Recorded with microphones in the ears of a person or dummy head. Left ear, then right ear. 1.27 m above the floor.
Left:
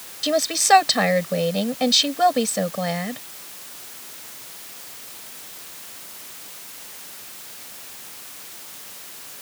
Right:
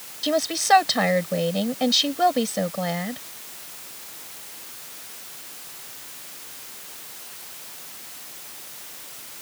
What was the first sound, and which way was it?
A woman speaking, 10° left (ahead or behind).